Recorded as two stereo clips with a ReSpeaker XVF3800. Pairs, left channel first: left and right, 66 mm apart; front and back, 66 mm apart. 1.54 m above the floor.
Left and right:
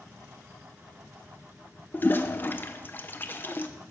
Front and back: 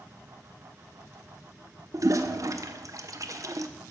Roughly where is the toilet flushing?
Behind left.